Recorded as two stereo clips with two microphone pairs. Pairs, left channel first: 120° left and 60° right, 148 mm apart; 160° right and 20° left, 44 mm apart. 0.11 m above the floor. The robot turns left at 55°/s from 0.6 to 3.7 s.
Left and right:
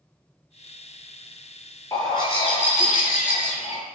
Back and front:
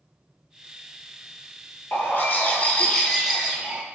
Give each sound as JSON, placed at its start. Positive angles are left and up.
{"t": 1.9, "sound": "a bird", "azimuth_deg": -175, "distance_m": 0.6}